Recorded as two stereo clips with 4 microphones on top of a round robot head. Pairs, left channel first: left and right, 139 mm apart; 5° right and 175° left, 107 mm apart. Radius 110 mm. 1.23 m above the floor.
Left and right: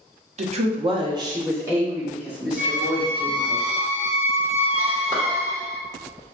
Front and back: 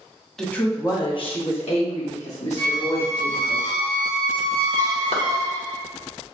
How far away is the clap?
About 0.9 m.